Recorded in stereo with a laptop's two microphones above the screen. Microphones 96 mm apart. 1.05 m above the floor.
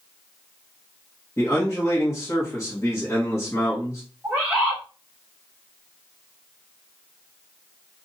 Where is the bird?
20° right (ahead or behind), 1.1 m.